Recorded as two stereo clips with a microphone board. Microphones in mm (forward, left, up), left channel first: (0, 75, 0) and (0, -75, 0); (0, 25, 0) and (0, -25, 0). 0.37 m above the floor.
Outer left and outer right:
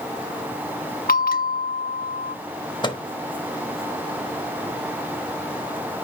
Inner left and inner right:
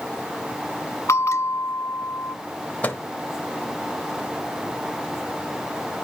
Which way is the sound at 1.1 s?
75° left (ahead or behind).